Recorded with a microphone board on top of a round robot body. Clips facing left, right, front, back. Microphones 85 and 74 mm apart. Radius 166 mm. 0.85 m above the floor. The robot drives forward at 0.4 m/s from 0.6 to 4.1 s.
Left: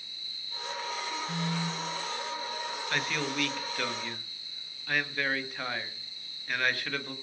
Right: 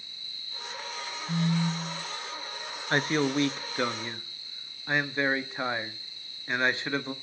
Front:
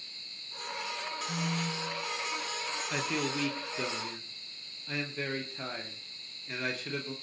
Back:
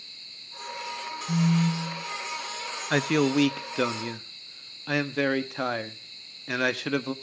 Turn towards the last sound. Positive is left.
turn(degrees=-160)